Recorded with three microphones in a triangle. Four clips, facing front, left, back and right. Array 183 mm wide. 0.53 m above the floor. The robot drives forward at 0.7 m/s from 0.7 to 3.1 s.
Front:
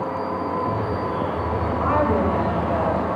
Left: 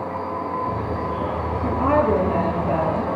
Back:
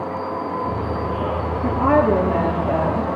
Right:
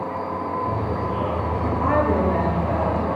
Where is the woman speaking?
170° left, 8.5 m.